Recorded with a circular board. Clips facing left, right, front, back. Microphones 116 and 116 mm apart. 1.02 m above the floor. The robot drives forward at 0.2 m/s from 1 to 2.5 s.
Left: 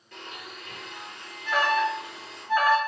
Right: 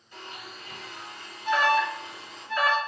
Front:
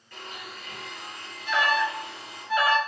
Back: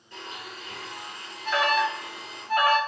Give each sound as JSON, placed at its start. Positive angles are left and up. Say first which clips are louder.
{"t": 0.1, "sound": "a blender", "louder": "left 1 dB, back 1 dB", "azimuth_deg": 115, "distance_m": 3.5}
{"t": 1.4, "sound": "an alarm", "louder": "right 1 dB, back 1 dB", "azimuth_deg": 140, "distance_m": 3.0}